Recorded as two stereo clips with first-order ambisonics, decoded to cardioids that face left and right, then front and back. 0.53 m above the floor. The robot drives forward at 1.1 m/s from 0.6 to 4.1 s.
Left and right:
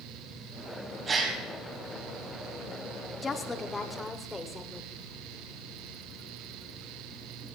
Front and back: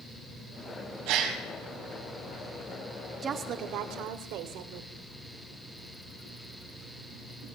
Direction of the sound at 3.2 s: 145° left.